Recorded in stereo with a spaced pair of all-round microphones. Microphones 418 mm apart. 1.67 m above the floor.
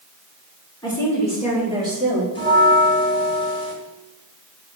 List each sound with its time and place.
0.8 s a woman speaking: 10° left (ahead or behind), 3 m; by 2.2 s 15° right (ahead or behind), 4 m
2.4 s a bell: 10° left (ahead or behind), 1.5 m